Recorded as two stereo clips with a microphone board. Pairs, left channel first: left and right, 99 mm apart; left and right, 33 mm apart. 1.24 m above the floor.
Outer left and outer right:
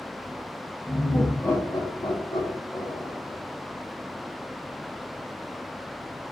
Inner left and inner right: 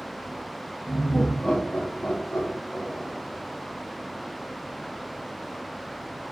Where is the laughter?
5° left (ahead or behind), 0.9 m; by 3.4 s 65° left (ahead or behind), 1.6 m.